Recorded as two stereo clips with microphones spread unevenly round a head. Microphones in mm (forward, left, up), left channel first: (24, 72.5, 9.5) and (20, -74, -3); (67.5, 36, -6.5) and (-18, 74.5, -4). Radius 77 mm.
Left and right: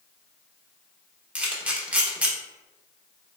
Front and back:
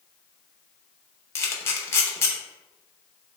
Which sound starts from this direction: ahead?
A camera shutter, at 1.4 s.